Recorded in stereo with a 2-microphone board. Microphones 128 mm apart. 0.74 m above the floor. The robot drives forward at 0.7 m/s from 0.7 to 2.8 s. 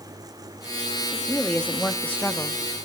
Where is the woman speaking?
10° left (ahead or behind), 1.4 m; by 2.6 s 15° left (ahead or behind), 0.7 m.